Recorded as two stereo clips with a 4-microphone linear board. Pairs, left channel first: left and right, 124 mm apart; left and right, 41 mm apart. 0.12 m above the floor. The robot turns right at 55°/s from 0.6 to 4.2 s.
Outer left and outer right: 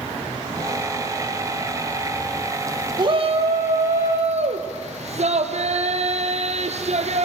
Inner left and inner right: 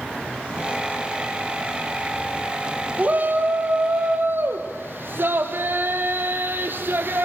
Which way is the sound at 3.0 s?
140° right.